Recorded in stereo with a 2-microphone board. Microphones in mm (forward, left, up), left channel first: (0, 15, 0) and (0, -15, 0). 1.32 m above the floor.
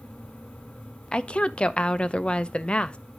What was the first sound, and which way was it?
A woman speaking, 35° left (ahead or behind).